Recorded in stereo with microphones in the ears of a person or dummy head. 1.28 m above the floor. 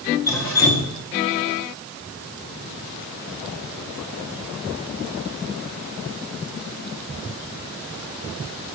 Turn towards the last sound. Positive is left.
turn(degrees=15)  # may be behind; listen again after turning